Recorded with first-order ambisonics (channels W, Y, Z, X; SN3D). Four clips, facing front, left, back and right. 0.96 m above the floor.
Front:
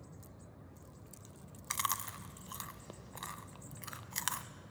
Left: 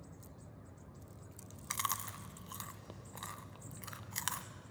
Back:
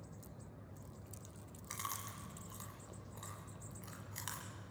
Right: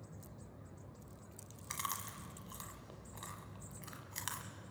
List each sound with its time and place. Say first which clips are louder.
1.7 s chewing: left 4 dB, front 8 dB; 25° left, 1.0 m